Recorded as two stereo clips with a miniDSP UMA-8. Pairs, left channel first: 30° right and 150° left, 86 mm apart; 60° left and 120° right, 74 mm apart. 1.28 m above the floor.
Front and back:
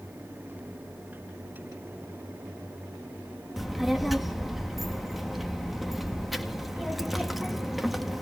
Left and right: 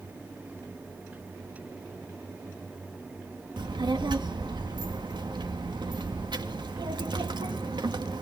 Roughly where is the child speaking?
Behind right.